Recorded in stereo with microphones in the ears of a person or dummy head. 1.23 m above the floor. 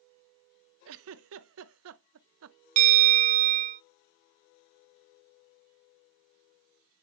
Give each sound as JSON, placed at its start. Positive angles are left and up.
{"t": 0.8, "sound": "a giggle", "side_deg": -65, "distance_m": 0.6}
{"t": 2.8, "sound": "a bell", "side_deg": -35, "distance_m": 0.7}